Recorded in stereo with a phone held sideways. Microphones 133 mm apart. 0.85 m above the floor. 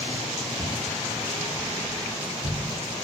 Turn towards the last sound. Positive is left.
turn(degrees=-60)  # may be behind; listen again after turning